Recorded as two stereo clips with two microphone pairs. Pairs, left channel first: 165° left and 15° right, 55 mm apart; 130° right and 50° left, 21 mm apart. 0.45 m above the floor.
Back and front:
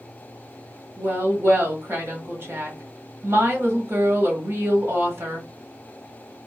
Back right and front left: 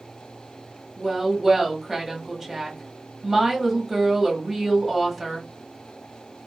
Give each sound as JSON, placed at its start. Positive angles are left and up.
{"t": 1.0, "sound": "a woman speaking", "azimuth_deg": -35, "distance_m": 1.1}